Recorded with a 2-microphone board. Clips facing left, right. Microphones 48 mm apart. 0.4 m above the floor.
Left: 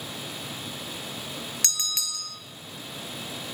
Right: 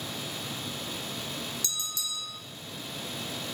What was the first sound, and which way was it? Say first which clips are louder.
A bell: left 4 dB; 70° left (ahead or behind).